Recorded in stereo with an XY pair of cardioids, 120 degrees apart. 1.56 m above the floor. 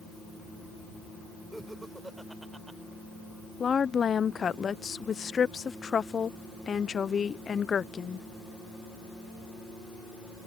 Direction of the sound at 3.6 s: 35° left.